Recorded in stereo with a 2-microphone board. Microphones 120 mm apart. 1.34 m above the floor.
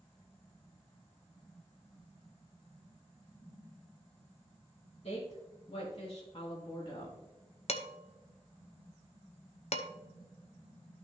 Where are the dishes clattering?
60° left (ahead or behind), 0.7 m.